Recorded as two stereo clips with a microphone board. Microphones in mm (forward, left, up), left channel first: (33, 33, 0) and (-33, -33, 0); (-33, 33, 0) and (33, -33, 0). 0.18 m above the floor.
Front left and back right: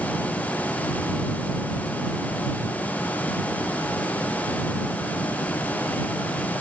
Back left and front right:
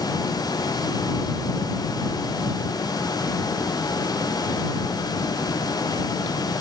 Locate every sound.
Only background noise.